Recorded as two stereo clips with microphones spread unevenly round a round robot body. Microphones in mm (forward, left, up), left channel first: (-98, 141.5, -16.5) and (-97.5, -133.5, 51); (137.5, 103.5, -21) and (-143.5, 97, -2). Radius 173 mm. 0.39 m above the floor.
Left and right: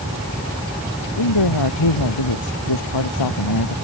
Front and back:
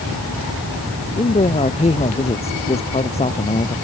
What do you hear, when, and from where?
1.2 s a man speaking: 70° left